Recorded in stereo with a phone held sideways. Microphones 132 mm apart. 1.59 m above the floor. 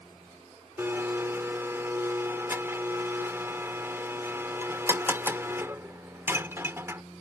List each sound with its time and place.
0.8 s a blender: 20° right (ahead or behind)